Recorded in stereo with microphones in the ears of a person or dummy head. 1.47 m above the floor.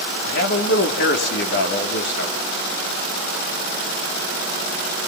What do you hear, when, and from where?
0.2 s a man speaking: 50° left (ahead or behind), 3 m